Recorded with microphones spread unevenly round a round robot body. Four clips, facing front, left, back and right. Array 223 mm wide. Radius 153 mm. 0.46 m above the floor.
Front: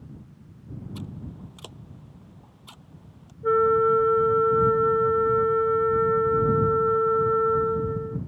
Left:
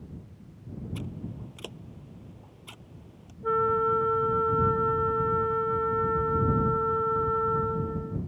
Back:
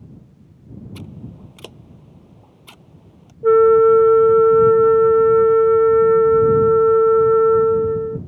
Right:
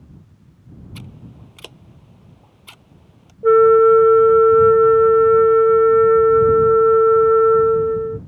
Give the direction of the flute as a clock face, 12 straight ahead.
5 o'clock.